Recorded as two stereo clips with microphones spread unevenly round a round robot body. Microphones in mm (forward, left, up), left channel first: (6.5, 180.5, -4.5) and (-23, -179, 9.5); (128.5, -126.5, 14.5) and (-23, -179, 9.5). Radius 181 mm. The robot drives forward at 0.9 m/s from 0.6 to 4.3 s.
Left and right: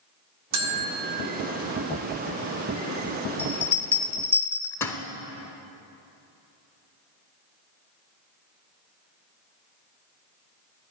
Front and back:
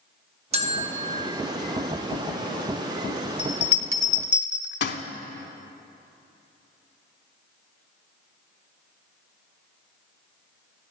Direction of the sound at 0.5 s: 120° right.